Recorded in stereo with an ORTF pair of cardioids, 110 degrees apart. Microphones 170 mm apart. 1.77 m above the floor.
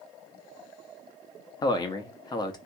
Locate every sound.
1.6 s a man speaking: 25° left, 0.9 m